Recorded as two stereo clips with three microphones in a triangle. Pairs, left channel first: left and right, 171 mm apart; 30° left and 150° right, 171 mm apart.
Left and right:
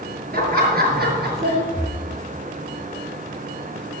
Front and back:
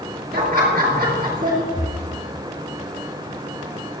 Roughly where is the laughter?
Behind right.